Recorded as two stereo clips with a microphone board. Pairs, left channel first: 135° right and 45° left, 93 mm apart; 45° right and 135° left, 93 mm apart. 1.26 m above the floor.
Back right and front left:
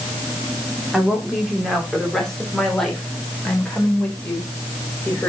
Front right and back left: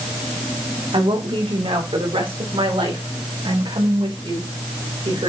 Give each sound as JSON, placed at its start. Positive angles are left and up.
{"t": 0.9, "sound": "a woman speaking", "azimuth_deg": 130, "distance_m": 2.5}